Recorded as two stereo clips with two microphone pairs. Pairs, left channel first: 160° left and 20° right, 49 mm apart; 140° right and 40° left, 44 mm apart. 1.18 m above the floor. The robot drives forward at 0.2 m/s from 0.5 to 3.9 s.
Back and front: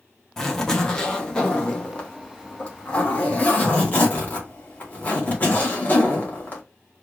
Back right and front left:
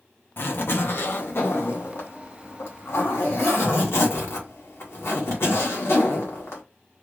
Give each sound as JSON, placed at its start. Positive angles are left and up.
{"t": 0.4, "sound": "a zipper", "azimuth_deg": -120, "distance_m": 1.0}